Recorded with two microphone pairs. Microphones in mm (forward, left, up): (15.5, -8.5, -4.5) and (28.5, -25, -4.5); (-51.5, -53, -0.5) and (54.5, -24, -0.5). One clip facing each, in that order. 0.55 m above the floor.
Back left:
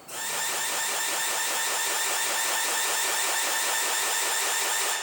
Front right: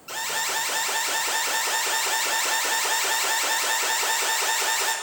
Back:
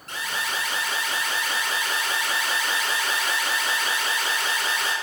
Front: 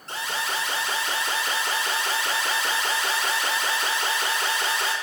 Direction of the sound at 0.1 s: 35° right.